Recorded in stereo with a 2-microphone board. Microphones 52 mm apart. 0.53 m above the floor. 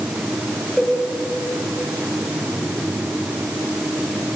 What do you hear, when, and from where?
0.8 s a cowbell: 15° left (ahead or behind), 3.5 m